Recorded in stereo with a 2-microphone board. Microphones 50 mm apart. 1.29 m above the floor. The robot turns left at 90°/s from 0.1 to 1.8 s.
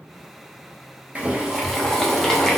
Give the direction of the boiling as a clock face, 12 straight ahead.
4 o'clock.